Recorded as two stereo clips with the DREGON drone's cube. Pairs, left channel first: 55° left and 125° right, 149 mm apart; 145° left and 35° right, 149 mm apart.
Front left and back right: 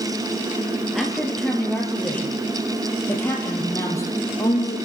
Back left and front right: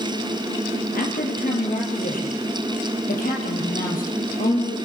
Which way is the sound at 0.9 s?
145° left.